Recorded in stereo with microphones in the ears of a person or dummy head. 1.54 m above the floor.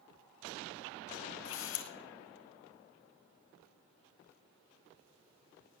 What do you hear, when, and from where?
1.4 s a camera shutter: 75° left (ahead or behind), 1.7 m